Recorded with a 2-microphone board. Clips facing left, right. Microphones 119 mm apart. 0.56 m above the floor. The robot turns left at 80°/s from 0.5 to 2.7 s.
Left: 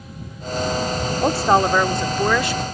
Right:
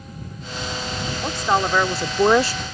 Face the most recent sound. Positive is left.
turn(degrees=-65)